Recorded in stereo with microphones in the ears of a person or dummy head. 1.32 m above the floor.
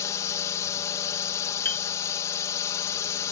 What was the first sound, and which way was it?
A drone, 20° left (ahead or behind).